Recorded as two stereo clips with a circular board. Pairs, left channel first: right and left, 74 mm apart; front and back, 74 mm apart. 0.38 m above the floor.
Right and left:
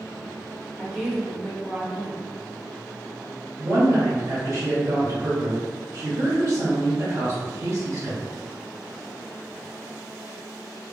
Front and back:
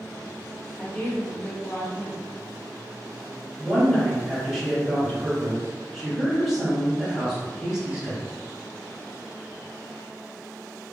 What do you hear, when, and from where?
0.8 s a woman speaking: 35° left, 0.8 m
3.6 s a woman speaking: 100° left, 1.9 m